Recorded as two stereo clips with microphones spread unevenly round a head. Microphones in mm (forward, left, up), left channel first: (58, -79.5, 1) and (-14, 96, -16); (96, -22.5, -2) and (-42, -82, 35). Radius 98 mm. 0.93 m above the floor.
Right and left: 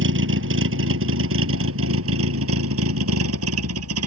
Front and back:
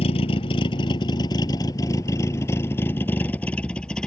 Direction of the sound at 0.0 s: 90° left.